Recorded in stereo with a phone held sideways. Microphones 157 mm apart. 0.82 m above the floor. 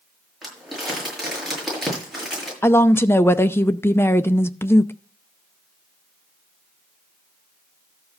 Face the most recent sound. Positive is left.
turn(degrees=15)  # may be behind; listen again after turning